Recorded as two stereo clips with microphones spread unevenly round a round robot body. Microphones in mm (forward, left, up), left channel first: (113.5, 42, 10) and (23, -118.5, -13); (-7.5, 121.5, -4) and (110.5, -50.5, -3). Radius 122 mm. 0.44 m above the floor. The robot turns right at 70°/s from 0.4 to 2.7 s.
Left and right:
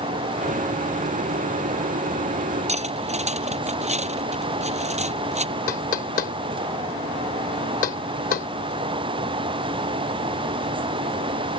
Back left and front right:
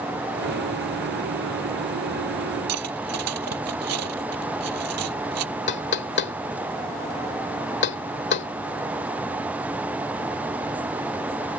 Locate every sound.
2.7 s cutlery clinking: 65° right
5.7 s knocking: 110° left